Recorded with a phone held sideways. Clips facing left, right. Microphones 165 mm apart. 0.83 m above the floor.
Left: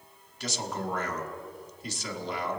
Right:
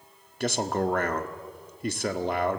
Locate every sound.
0.4 s a man speaking: 60° right (ahead or behind), 1.5 m